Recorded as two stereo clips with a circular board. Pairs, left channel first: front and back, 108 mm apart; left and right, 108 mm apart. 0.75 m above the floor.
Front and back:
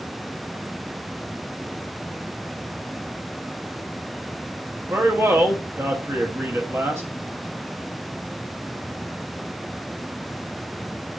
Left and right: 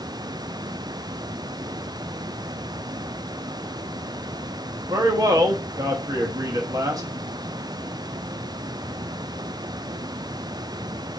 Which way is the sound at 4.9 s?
125° right.